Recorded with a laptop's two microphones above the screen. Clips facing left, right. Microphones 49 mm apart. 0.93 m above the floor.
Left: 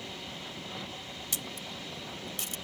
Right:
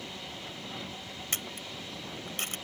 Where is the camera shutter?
55° right (ahead or behind).